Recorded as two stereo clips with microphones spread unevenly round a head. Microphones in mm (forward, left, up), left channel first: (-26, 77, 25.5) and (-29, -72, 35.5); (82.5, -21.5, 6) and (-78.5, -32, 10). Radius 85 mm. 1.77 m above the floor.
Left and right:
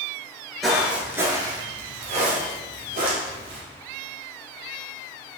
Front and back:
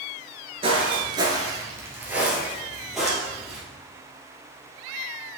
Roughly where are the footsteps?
Behind.